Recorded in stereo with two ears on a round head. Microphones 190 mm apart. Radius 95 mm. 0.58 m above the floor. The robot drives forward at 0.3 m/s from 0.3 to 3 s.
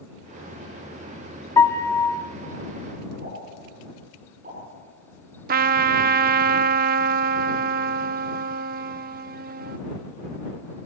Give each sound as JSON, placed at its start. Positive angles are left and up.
{"t": 1.6, "sound": "a piano", "side_deg": 15, "distance_m": 0.8}
{"t": 3.2, "sound": "a pop", "side_deg": -40, "distance_m": 8.5}
{"t": 5.5, "sound": "a trumpet", "side_deg": -45, "distance_m": 0.6}